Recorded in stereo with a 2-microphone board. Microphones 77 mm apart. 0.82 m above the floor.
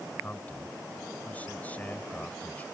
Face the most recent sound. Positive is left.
turn(degrees=20)  # may be behind; listen again after turning